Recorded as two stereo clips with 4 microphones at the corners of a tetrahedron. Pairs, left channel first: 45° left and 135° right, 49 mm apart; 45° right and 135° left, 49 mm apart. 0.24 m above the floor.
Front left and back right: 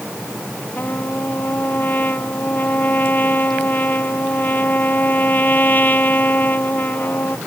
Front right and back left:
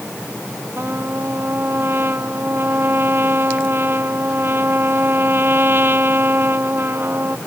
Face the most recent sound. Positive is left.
turn(degrees=95)